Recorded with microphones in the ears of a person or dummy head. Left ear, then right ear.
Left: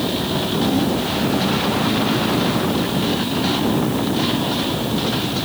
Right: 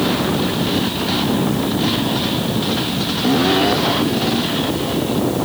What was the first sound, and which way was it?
Only background noise.